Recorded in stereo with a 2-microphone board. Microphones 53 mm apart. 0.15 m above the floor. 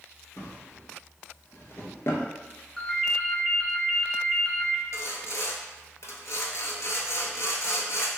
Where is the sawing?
70° left (ahead or behind), 0.6 m.